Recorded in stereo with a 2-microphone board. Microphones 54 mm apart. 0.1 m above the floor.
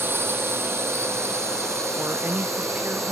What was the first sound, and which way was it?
A drone, 45° right (ahead or behind).